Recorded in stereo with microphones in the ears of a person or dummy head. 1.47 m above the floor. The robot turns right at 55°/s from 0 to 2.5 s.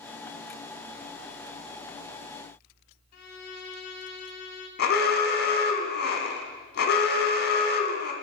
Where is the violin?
45° left (ahead or behind), 0.8 m.